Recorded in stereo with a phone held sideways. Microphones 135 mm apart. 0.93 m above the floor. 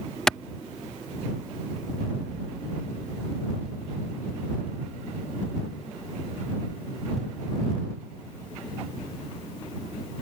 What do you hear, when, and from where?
0.3 s a clap: 5° left (ahead or behind)